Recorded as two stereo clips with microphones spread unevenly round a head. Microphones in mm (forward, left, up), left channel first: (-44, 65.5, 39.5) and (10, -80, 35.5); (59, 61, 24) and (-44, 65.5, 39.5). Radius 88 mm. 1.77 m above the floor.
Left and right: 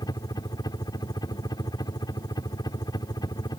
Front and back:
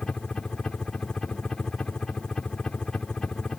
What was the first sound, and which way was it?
A helicopter, 65° left.